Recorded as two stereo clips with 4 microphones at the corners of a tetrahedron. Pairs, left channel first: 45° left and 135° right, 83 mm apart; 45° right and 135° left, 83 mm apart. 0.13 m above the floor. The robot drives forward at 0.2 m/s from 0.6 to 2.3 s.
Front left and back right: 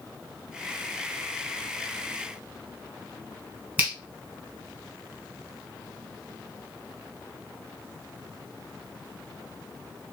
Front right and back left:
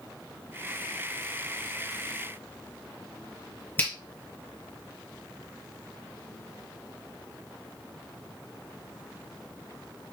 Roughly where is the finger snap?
Right.